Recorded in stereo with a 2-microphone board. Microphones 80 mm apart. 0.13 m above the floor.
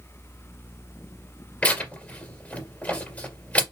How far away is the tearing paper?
About 3 m.